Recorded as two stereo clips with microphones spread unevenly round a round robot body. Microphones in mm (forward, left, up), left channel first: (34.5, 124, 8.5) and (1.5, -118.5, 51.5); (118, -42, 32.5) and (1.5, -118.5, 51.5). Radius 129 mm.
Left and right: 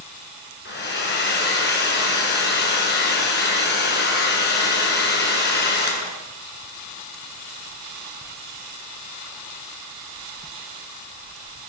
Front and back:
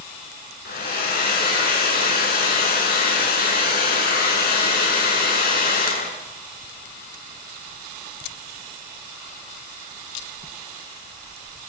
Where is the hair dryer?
30° left, 7 m.